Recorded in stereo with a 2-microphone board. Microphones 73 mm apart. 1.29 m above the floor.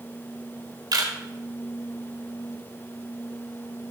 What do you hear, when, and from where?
0.9 s a camera shutter: 60° right (ahead or behind), 1.5 m